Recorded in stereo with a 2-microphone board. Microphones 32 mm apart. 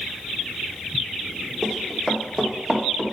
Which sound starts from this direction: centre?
Running footsteps, at 1.6 s.